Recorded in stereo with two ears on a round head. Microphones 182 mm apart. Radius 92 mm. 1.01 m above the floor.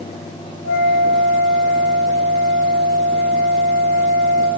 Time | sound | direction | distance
0.6 | a flute | 80° left | 3 m